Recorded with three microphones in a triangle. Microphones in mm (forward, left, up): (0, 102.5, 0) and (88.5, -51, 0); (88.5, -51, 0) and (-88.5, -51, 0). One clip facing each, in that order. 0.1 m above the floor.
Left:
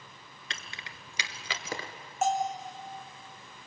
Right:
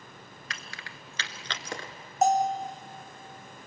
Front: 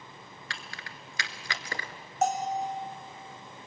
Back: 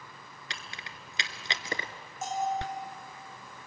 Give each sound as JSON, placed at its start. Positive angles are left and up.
{"t": 0.5, "sound": "keys jangling", "azimuth_deg": 135, "distance_m": 1.3}
{"t": 2.2, "sound": "a bell", "azimuth_deg": -10, "distance_m": 2.5}